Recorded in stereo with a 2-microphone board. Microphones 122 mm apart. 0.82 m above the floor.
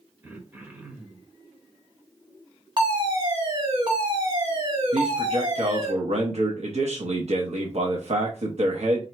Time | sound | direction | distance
0.2 | throat clearing | 15° right (ahead or behind) | 1.1 m
2.8 | a fire alarm | 40° right (ahead or behind) | 2 m
4.9 | a man speaking | 65° right (ahead or behind) | 0.9 m